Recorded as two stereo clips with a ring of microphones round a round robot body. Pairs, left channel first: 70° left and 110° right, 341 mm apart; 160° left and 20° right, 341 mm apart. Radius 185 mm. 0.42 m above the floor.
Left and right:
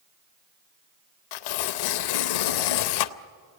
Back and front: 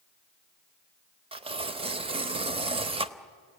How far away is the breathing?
No breathing in this recording.